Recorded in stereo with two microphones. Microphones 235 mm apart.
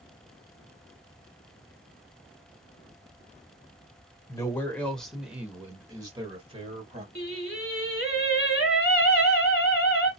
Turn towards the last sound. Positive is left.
turn(degrees=45)  # may be behind; listen again after turning